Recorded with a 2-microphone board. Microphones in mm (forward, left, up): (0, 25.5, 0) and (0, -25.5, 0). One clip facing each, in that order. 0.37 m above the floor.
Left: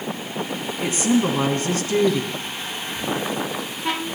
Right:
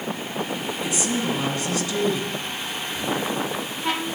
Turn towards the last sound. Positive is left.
turn(degrees=-30)  # may be behind; listen again after turning